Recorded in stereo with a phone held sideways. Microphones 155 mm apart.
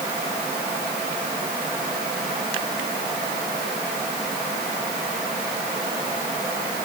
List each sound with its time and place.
Only background noise.